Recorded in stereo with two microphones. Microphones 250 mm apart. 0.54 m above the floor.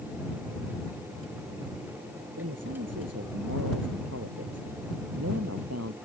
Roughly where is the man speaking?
Right.